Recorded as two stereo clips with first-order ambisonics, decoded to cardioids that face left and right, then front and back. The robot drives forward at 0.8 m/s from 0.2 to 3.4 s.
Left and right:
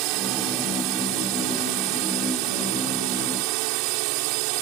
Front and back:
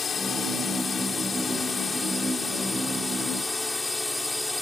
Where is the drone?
70° right; by 4.6 s 85° right.